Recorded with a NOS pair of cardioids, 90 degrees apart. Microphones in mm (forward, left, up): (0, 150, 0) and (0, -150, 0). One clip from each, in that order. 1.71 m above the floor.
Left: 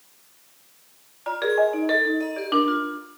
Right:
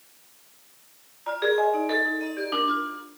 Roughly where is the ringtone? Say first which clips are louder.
Left 1 dB; ahead left.